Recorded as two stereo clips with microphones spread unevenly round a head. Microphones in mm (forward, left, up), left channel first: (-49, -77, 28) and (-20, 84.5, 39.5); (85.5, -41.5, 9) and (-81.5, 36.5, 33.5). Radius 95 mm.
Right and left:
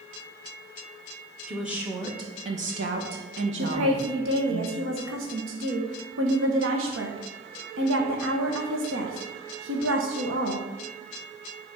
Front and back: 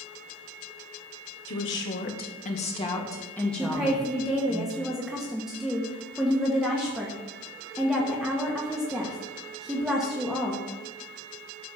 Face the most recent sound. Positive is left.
turn(degrees=65)